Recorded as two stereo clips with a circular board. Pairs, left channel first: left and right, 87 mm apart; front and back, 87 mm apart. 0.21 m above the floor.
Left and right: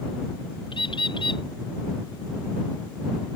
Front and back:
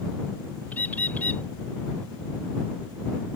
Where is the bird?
70° left.